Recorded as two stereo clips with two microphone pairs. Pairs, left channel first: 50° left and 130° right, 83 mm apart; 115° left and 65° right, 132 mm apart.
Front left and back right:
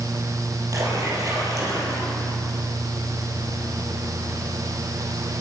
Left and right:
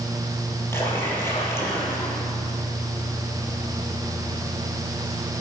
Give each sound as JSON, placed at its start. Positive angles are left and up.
{"t": 0.7, "sound": "a splash", "azimuth_deg": -175, "distance_m": 4.0}